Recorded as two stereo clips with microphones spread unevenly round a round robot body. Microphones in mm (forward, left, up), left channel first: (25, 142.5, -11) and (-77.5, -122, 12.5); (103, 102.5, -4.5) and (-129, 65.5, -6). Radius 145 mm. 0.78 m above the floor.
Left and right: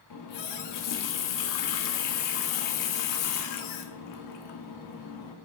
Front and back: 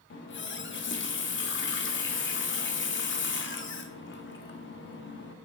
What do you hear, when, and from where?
0.1 s a running tap: 50° left, 1.0 m